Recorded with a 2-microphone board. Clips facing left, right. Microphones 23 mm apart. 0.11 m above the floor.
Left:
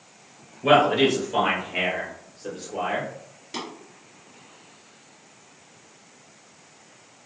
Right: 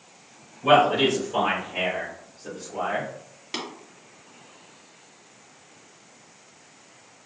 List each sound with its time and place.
0.6 s a man speaking: 30° left (ahead or behind), 1.5 m; by 3.1 s 55° left (ahead or behind), 2.5 m
3.5 s tapping: 30° right (ahead or behind), 1.9 m